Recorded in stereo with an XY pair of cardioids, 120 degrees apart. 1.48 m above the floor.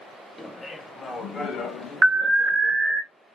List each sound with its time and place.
0.4 s laughter: 10° left, 1.1 m; by 3.0 s 75° left, 1.6 m
2.0 s an alarm: 30° right, 0.7 m